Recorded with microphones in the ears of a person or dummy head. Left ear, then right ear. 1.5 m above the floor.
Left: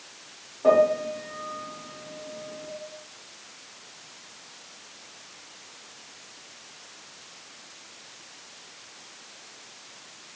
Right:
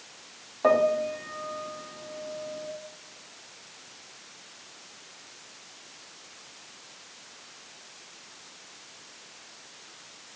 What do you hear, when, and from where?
0.6 s a piano: 60° right (ahead or behind), 0.8 m